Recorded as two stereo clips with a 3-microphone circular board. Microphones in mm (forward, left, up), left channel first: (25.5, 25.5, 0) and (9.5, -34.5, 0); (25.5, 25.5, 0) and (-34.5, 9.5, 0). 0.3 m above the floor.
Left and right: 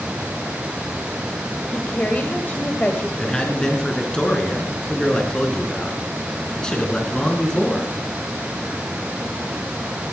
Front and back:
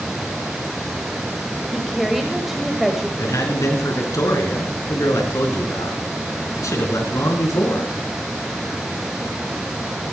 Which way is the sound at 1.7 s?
110° left.